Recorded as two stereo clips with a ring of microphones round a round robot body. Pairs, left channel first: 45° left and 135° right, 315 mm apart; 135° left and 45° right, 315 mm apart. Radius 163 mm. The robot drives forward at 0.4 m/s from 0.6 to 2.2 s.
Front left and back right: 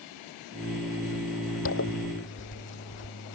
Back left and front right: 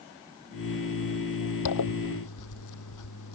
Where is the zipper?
95° left; by 3.4 s 100° left.